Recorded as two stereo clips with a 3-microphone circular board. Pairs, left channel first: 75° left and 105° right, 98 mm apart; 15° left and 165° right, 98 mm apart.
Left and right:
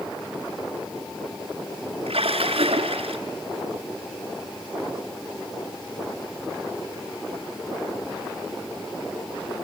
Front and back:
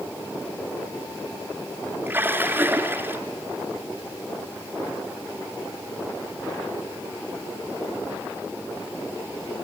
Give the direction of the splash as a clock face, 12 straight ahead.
3 o'clock.